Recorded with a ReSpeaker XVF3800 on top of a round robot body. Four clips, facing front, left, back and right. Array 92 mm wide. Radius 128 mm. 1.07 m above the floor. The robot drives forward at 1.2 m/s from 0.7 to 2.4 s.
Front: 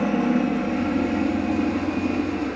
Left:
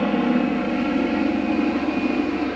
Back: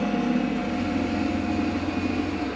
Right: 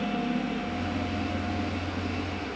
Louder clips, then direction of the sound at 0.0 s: Left 9 dB, front 3 dB; 60° left.